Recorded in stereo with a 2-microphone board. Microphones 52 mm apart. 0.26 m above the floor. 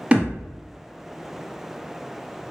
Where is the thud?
25° right (ahead or behind), 0.9 m.